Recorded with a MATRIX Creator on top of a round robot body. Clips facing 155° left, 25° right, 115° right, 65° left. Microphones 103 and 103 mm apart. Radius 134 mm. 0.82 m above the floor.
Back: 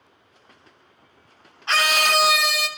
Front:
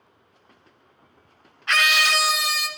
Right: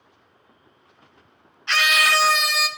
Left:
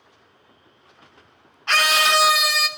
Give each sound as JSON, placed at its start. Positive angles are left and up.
{"t": 1.7, "sound": "a scream", "azimuth_deg": 100, "distance_m": 1.2}